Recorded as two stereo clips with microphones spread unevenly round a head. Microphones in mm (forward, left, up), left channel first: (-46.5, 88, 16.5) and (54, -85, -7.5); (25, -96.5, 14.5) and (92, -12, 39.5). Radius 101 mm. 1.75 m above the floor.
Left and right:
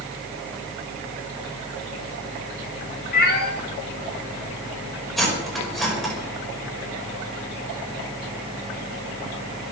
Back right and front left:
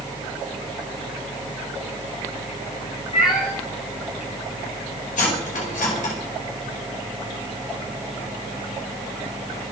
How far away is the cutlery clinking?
About 5 m.